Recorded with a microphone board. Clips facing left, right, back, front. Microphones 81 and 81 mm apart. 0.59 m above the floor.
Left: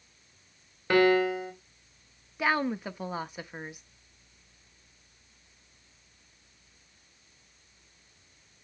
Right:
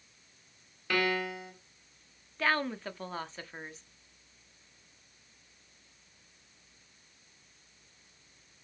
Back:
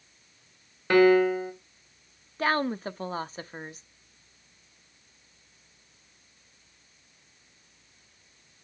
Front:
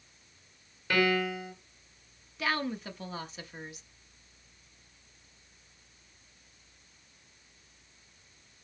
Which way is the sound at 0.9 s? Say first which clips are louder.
Left 9 dB, back 9 dB; 145° left.